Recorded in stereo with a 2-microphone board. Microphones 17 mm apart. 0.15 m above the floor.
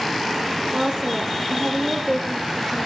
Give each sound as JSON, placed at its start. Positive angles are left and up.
{"t": 0.7, "sound": "a woman speaking", "side_deg": -50, "distance_m": 3.5}